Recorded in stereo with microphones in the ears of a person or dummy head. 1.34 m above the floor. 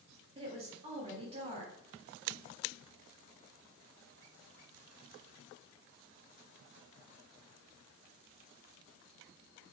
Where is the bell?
No bell in this recording.